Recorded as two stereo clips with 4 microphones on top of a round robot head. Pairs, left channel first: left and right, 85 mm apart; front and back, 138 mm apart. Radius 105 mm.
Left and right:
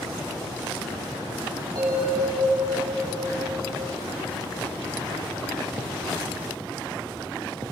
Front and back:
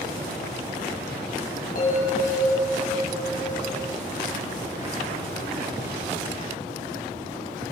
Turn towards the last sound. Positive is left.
turn(degrees=-30)